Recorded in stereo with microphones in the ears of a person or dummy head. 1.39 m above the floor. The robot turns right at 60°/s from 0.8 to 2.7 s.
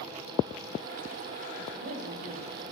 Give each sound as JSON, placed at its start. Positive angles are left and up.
{"t": 1.7, "sound": "a woman speaking", "azimuth_deg": -120, "distance_m": 1.6}